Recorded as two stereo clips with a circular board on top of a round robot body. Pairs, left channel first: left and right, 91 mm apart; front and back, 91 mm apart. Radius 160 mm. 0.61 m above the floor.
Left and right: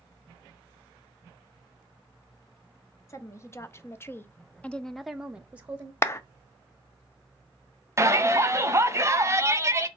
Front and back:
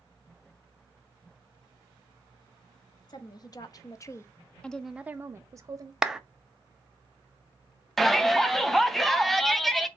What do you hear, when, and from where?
3.1 s a woman speaking: 35° left, 1.2 m; by 5.9 s 155° right, 0.8 m
6.0 s a clap: 100° left, 0.8 m
8.0 s a shout: 85° right, 1.1 m